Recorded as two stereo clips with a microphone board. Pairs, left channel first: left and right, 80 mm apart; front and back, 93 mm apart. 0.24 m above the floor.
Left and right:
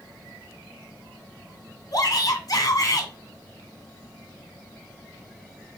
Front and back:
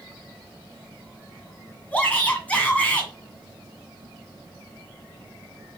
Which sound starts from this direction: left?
A shout, at 1.9 s.